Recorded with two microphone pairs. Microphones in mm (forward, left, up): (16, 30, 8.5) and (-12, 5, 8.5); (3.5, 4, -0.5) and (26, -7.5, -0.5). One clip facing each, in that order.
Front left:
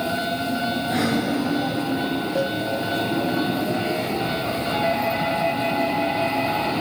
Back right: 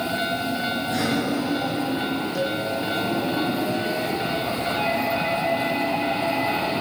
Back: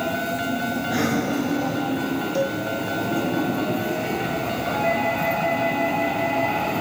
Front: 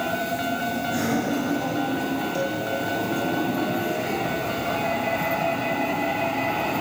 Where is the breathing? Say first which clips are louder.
Front left 2 dB, back 2 dB; 100° left, 9.5 m.